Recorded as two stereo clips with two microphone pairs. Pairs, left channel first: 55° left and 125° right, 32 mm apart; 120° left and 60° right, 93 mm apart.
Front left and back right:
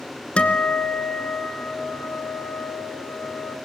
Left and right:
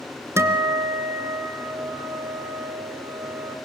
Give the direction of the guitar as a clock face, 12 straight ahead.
12 o'clock.